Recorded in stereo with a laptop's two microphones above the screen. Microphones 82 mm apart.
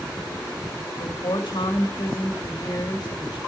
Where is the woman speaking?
65° left (ahead or behind), 2 m.